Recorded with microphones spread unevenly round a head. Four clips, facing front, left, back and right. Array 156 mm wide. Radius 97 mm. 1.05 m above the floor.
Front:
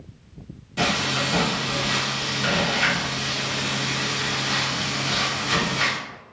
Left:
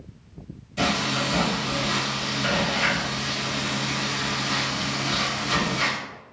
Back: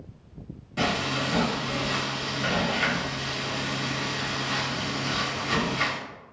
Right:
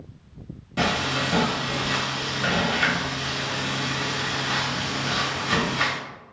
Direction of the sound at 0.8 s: 70° right.